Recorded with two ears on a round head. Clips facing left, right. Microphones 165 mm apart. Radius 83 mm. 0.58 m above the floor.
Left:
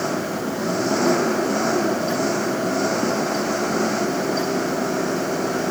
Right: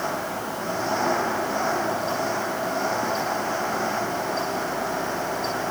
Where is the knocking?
I don't hear knocking.